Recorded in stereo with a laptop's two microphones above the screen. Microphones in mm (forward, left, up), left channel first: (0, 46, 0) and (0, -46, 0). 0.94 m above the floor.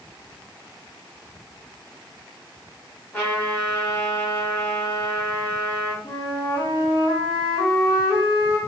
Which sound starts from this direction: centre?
A trumpet, at 3.1 s.